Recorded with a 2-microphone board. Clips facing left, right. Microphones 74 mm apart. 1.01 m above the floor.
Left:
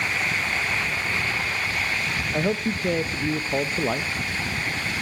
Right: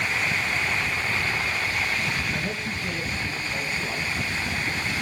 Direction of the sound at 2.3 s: 50° left (ahead or behind).